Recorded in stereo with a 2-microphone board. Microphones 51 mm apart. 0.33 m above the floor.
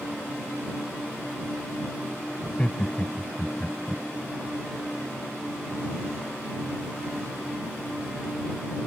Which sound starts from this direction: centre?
Laughter, at 2.4 s.